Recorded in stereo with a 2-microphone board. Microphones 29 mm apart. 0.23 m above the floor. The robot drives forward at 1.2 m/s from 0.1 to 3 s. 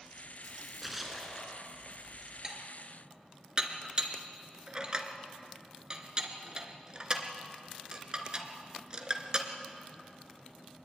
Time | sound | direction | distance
0.4 | a splash | 5° right (ahead or behind) | 2.5 m
2.4 | dishes clattering | 25° right (ahead or behind) | 2.5 m